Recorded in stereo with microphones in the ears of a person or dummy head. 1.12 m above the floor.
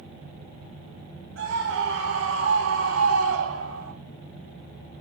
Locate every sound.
1.4 s a scream: 70° right (ahead or behind), 4.5 m; by 3.9 s 80° right, 2.5 m